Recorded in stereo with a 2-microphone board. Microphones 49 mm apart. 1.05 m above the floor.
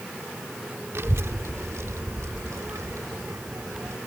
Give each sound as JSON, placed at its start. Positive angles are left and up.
{"t": 0.9, "sound": "a child speaking", "side_deg": -55}